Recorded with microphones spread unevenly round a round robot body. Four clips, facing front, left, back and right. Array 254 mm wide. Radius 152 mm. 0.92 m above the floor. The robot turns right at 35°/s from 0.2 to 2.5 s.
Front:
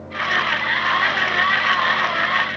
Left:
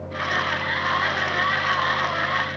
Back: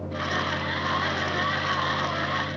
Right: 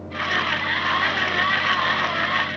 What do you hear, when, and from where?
Only background noise.